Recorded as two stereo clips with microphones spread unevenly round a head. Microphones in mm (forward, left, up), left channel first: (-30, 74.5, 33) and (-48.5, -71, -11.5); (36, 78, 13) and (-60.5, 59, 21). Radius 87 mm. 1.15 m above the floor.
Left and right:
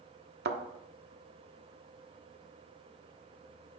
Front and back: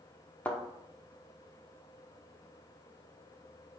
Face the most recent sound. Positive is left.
turn(degrees=-70)